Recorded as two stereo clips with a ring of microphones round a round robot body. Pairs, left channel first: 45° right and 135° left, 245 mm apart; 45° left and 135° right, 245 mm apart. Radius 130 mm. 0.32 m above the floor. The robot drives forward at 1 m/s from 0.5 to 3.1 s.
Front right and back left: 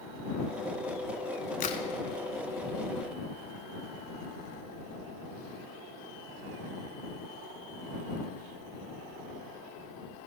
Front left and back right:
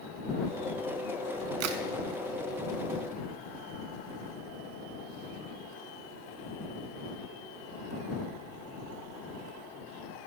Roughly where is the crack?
Right.